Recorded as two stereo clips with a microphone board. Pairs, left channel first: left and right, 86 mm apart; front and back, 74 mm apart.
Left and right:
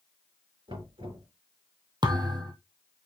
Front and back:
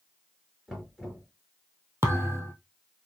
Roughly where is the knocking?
Right.